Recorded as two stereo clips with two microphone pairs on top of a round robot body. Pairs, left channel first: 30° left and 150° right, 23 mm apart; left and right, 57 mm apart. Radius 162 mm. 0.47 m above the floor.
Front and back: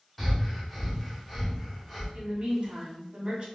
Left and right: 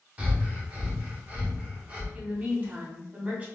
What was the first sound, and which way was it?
Breathing, 50° right.